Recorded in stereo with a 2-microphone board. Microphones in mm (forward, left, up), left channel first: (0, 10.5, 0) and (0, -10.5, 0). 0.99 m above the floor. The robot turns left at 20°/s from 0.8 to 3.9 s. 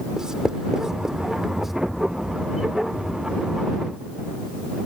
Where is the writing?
30° right (ahead or behind); by 1.7 s 15° right (ahead or behind).